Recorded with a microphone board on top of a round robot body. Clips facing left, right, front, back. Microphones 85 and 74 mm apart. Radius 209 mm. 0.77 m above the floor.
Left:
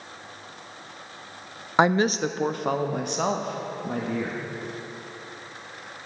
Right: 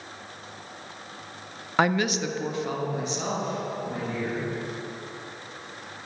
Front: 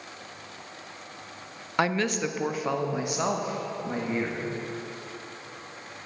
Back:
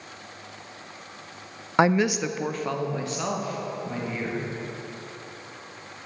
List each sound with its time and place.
1.8 s a woman speaking: 140° left, 0.6 m; by 4.4 s 65° left, 1.7 m